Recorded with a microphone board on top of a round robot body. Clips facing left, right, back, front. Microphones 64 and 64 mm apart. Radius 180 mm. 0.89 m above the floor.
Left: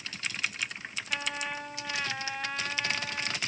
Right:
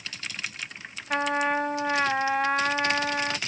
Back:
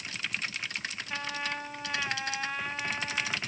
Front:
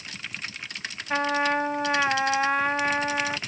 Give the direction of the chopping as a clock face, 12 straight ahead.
No chopping in this recording.